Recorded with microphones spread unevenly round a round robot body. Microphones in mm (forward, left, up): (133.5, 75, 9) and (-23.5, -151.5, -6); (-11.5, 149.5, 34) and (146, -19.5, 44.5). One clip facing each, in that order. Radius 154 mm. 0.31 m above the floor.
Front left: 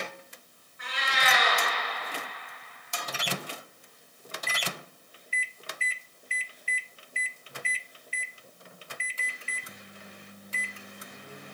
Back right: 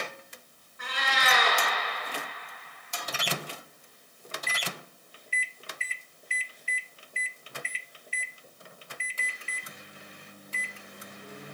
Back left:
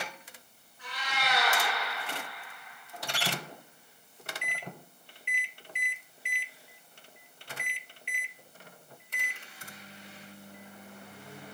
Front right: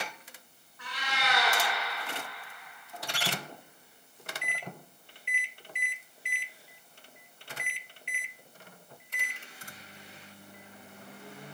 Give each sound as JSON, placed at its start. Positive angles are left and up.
{"t": 0.8, "sound": "a cat meowing", "azimuth_deg": -90, "distance_m": 2.0}